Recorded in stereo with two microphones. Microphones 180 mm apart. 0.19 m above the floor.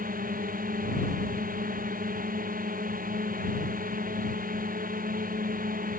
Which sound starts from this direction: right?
A drone, at 0.0 s.